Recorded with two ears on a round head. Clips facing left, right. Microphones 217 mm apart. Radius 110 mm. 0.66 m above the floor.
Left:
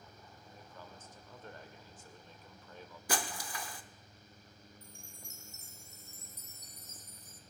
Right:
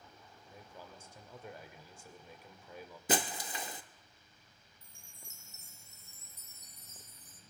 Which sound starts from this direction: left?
A chime, at 4.8 s.